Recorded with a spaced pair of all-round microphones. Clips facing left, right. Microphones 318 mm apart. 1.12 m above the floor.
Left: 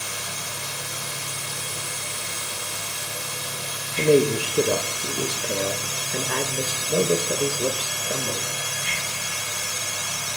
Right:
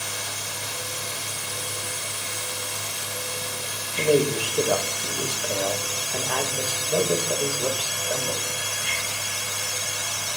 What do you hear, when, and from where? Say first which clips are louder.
0.0 s a machine running: even; 70° left (ahead or behind), 4.5 m
4.0 s a man speaking: left 3 dB; 30° left (ahead or behind), 0.8 m